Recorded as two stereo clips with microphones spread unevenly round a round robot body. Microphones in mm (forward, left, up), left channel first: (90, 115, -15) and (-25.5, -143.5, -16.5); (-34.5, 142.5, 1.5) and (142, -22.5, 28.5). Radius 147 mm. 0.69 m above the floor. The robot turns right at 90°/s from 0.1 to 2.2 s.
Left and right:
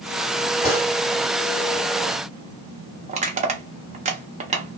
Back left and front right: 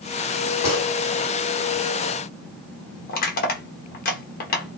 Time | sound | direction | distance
0.6 | a gunshot | 135° left | 1.2 m
3.1 | crushing | straight behind | 0.6 m